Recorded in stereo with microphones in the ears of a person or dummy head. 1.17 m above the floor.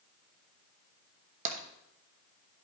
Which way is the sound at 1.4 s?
40° right (ahead or behind).